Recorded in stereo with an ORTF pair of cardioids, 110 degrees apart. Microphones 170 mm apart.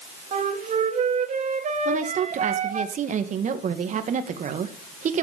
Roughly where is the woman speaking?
Ahead right.